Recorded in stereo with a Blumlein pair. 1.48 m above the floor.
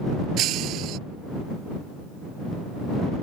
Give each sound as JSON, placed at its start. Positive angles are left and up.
{"t": 0.4, "sound": "breaking glass", "azimuth_deg": -35}